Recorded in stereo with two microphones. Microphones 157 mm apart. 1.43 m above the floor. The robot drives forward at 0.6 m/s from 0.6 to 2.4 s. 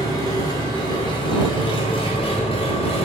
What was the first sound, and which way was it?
An engine running, 25° left (ahead or behind).